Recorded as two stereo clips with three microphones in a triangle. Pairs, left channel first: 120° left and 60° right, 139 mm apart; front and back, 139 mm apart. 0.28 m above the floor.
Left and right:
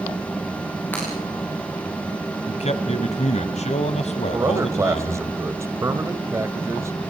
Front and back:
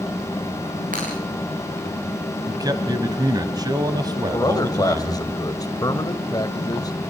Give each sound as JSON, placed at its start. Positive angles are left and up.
{"t": 0.9, "sound": "breaking glass", "azimuth_deg": -165, "distance_m": 9.5}
{"t": 2.5, "sound": "a man speaking", "azimuth_deg": 125, "distance_m": 1.5}
{"t": 4.3, "sound": "a man speaking", "azimuth_deg": -15, "distance_m": 1.1}